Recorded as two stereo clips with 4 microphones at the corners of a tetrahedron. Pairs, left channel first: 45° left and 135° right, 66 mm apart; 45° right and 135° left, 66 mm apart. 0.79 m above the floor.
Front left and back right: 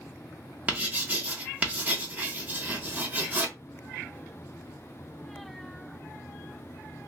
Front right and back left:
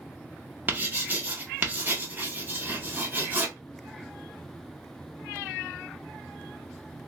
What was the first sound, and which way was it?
Writing, straight behind.